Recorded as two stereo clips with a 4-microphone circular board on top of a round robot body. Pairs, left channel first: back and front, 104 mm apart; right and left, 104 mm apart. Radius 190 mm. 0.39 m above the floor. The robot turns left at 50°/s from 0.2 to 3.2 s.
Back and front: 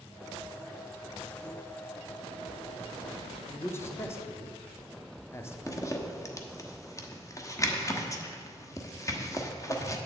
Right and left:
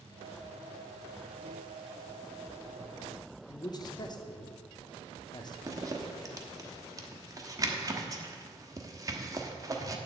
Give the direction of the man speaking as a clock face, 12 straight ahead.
4 o'clock.